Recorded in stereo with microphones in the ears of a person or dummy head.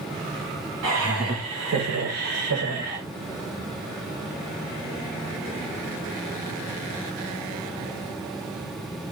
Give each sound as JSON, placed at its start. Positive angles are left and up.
{"t": 0.8, "sound": "laughter", "side_deg": -80, "distance_m": 5.5}